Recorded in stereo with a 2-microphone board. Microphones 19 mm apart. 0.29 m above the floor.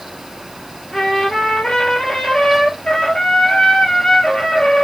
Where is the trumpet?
60° left (ahead or behind), 1.1 m.